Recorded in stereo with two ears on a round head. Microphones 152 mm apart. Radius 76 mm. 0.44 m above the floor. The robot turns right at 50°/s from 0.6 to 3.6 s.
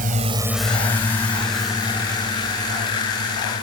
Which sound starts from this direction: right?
A drone, at 0.0 s.